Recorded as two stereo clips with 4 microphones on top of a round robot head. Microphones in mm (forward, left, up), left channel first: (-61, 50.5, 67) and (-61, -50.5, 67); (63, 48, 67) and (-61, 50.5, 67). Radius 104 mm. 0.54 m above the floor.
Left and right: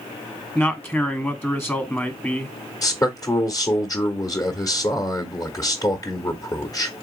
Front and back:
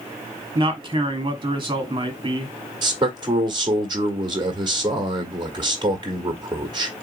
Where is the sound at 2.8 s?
135° left, 1.1 m.